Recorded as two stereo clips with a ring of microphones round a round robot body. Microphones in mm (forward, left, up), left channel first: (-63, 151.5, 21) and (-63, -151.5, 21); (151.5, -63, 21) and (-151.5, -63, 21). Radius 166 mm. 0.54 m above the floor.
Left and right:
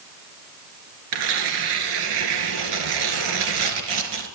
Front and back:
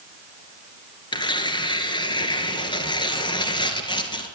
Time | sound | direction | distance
1.1 | tearing paper | 75° right | 1.6 m